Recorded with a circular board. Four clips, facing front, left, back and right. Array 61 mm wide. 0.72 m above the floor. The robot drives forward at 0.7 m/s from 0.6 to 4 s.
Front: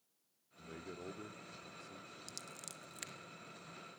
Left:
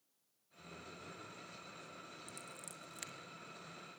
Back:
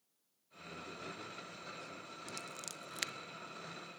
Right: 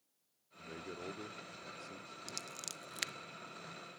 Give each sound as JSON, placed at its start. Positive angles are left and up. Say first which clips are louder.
{"t": 0.6, "sound": "a man speaking", "louder": "right 7 dB, back 1 dB", "azimuth_deg": -60, "distance_m": 1.4}
{"t": 2.3, "sound": "scissors", "louder": "right 3 dB, back 6 dB", "azimuth_deg": -75, "distance_m": 0.6}